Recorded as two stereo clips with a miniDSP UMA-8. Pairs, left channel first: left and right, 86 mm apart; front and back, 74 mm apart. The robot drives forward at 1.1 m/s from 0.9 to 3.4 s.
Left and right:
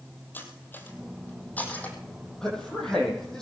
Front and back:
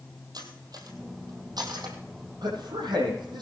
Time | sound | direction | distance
0.3 | cutlery clinking | 155° left | 3.5 m
2.4 | a man speaking | 170° left | 8 m